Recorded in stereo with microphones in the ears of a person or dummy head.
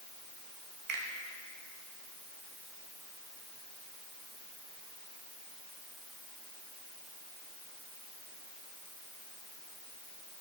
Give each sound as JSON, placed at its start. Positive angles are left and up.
{"t": 0.9, "sound": "a finger snap", "side_deg": -60, "distance_m": 0.9}